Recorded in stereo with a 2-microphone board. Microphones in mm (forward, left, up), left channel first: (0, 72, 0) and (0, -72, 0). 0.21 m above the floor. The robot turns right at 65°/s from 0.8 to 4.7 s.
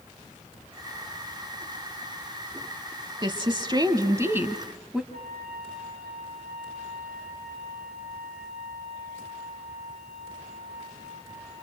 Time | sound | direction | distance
3.2 | a woman speaking | 105° right | 1.1 m
5.1 | a trumpet | 75° right (ahead or behind) | 7 m